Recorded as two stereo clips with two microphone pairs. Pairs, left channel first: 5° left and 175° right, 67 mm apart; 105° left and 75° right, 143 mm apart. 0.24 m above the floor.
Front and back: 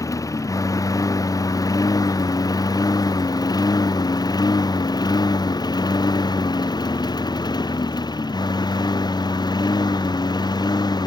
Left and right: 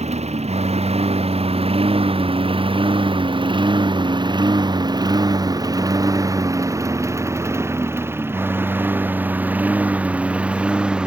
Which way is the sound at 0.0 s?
35° right.